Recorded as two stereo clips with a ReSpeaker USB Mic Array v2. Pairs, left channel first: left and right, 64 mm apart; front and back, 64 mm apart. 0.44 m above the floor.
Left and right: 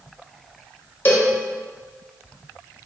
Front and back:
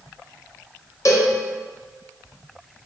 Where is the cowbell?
30° left, 0.6 m.